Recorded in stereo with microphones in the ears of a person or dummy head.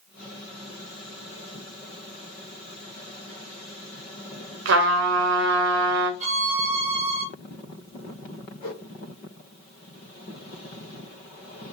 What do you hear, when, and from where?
4.7 s a trumpet: 65° right (ahead or behind), 0.5 m
6.2 s a violin: 40° right (ahead or behind), 0.7 m
8.6 s a whoosh: 35° left (ahead or behind), 1.1 m